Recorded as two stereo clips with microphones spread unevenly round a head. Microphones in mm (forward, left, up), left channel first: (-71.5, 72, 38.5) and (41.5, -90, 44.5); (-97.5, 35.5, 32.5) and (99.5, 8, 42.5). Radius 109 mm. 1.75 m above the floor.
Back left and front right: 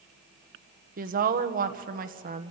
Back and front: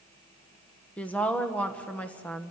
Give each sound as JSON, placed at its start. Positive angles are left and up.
{"t": 1.0, "sound": "a woman speaking", "azimuth_deg": -105, "distance_m": 1.5}